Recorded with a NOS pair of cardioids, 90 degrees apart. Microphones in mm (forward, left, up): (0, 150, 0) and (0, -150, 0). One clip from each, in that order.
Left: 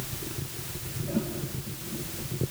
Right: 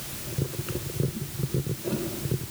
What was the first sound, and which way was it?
Only background noise.